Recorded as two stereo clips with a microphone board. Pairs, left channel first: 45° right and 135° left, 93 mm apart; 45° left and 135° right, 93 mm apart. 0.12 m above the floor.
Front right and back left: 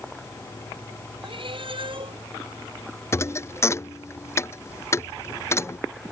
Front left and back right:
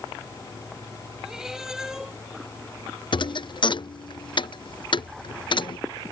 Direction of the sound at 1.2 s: 140° left.